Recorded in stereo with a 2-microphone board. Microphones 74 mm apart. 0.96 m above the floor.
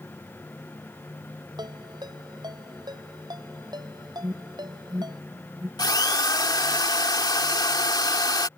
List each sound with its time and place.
1.6 s a ringtone: 70° right (ahead or behind)
4.2 s an alarm: 30° right (ahead or behind)
5.8 s a drill: 70° left (ahead or behind)